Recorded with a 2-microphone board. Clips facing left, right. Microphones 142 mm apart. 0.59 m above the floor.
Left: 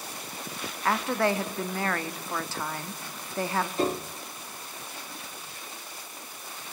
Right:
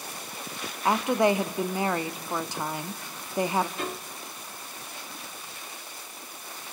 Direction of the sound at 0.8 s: 15° right (ahead or behind).